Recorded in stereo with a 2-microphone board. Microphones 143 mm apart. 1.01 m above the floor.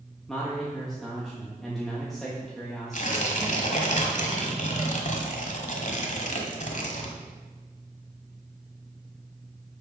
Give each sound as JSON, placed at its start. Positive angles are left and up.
{"t": 0.3, "sound": "a man speaking", "side_deg": 0, "distance_m": 1.5}
{"t": 2.9, "sound": "tearing paper", "side_deg": 60, "distance_m": 1.5}